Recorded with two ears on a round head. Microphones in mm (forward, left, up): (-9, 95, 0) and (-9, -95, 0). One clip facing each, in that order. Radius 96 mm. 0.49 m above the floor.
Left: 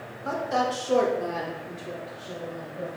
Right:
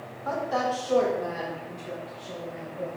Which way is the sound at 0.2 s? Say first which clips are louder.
Left 1 dB; 30° left (ahead or behind).